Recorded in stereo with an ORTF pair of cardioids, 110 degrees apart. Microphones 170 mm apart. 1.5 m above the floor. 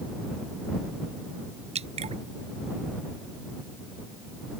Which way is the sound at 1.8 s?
40° right.